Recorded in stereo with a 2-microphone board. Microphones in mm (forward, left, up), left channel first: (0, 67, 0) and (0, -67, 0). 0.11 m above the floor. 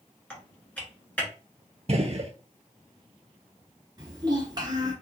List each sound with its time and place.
0.3 s typing on a keyboard: 10° left (ahead or behind), 1.2 m
1.9 s a gunshot: 55° right (ahead or behind), 0.5 m
4.0 s a child speaking: 30° right (ahead or behind), 1.3 m